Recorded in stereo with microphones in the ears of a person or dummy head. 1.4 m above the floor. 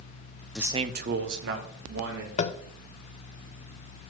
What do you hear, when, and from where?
0.6 s a man speaking: centre (ahead or behind), 0.5 m; by 2.3 s 75° right (ahead or behind), 2.5 m
2.4 s tapping: 35° left (ahead or behind), 0.6 m